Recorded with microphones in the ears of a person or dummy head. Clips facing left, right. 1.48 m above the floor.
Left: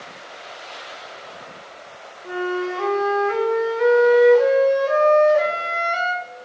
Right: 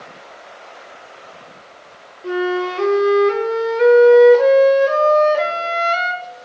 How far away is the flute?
About 1.4 m.